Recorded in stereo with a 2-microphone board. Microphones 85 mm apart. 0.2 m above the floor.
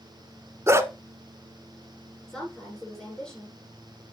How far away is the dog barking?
About 0.8 m.